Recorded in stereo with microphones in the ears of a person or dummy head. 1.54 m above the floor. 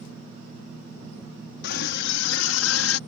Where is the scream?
65° left (ahead or behind); by 3.0 s 80° left.